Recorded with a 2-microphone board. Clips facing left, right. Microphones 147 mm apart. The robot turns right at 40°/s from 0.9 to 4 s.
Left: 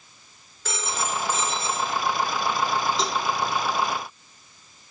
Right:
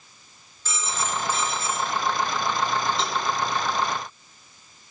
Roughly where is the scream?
I don't hear a scream.